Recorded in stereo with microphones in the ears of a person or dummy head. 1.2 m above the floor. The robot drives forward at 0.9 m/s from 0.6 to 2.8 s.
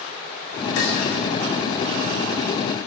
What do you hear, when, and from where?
0.8 s dishes clattering: 70° left (ahead or behind), 3 m; by 1.0 s 65° left (ahead or behind), 3 m